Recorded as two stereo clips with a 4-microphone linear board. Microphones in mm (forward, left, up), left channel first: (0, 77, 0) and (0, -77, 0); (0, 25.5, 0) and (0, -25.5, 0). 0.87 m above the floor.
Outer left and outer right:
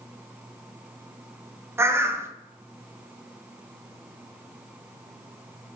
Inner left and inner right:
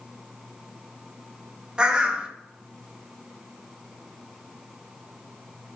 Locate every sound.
1.8 s a bird: 15° right (ahead or behind), 0.6 m